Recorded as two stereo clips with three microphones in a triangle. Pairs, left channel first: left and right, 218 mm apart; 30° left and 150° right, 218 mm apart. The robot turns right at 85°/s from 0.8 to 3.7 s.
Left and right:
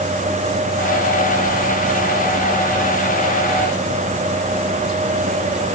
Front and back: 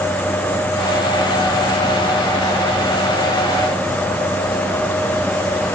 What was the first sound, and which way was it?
Only background noise.